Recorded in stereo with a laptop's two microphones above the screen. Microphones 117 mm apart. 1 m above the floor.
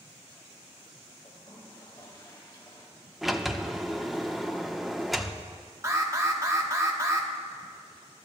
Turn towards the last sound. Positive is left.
turn(degrees=-25)  # may be behind; listen again after turning